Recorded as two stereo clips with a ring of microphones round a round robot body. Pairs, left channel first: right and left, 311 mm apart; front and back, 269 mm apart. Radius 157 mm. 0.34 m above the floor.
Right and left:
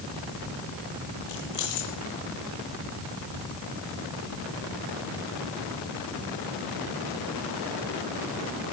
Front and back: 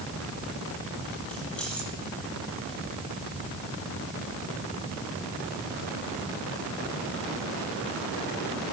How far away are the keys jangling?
About 8.5 m.